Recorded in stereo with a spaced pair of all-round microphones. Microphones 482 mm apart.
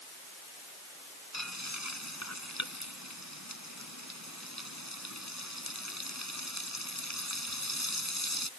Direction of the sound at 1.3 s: 35° left (ahead or behind).